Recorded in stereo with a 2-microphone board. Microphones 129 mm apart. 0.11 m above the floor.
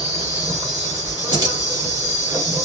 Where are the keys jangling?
30° right (ahead or behind), 1.3 m.